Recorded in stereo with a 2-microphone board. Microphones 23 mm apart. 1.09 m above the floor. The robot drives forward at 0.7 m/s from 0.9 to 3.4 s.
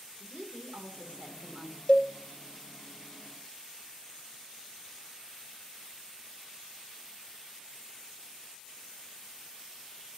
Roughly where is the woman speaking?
Right.